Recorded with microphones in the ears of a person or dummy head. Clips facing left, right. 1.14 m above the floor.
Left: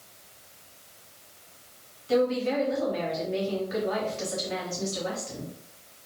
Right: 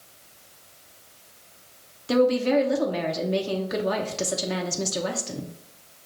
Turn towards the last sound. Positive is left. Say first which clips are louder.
# right 4 dB
turn(degrees=-65)  # may be behind; listen again after turning